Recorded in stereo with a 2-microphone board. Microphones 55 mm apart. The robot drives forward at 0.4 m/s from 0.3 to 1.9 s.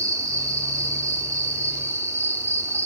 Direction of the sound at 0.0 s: 70° right (ahead or behind).